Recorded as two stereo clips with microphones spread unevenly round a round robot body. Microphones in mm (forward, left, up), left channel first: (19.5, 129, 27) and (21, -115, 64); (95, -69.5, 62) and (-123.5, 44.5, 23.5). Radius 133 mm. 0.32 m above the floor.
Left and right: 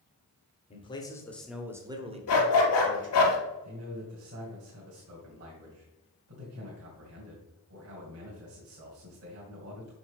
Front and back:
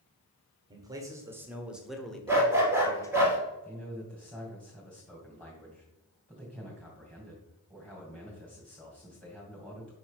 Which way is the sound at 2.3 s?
70° left.